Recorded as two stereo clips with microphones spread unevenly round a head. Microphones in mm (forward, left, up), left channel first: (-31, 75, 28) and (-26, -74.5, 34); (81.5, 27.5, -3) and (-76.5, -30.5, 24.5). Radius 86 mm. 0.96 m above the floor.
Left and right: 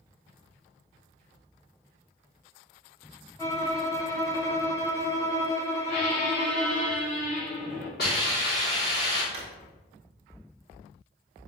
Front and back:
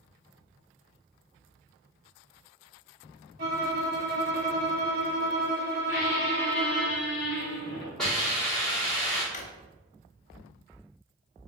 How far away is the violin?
About 1.4 m.